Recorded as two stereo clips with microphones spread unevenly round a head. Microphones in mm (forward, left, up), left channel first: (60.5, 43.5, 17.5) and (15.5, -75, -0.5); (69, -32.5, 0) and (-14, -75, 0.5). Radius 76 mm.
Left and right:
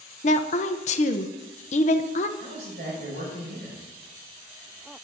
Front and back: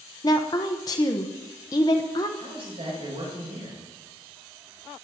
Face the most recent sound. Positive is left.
turn(degrees=-135)